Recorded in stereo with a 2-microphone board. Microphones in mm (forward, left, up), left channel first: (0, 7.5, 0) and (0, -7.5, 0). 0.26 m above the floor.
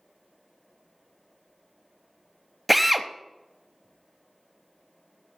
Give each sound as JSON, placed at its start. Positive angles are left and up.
{"t": 2.7, "sound": "a drill", "side_deg": -5, "distance_m": 0.6}